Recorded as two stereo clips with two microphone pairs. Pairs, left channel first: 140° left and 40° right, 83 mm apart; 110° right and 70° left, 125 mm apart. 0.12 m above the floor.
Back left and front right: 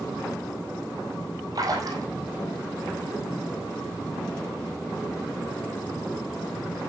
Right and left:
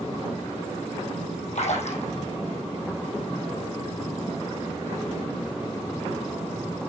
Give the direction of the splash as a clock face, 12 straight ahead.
3 o'clock.